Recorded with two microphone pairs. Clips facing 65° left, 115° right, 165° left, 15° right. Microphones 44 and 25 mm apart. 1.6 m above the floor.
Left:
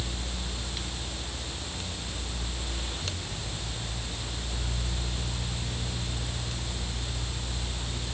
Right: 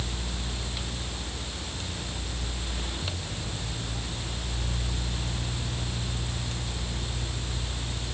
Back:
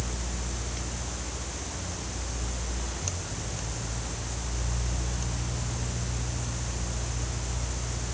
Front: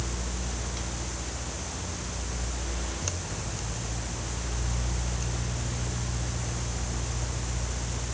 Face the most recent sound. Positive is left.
No sound to turn to.